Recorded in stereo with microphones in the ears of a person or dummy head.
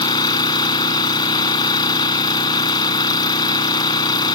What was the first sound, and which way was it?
An engine running, 25° left (ahead or behind).